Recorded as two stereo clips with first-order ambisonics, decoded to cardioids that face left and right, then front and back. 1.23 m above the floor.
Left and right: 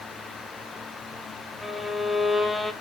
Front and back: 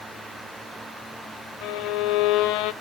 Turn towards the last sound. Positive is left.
turn(degrees=5)